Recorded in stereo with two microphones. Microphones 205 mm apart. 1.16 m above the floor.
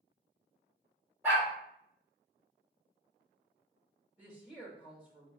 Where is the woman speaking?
10° right (ahead or behind), 1.2 m.